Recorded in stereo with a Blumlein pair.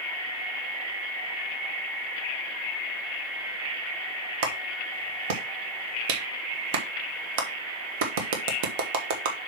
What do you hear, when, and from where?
4.4 s a clap: 50° right, 1.5 m